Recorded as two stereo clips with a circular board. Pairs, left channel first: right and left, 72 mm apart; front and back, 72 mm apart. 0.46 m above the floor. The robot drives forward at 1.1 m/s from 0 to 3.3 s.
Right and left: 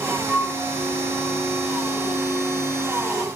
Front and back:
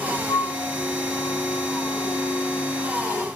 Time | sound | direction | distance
0.3 | a flute | 5° right | 4 m